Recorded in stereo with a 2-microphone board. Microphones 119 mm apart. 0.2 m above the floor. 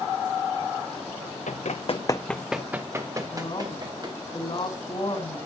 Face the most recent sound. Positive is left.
turn(degrees=45)  # may be behind; listen again after turning